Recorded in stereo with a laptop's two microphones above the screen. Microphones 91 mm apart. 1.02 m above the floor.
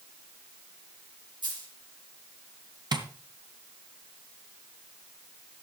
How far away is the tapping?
About 1.9 m.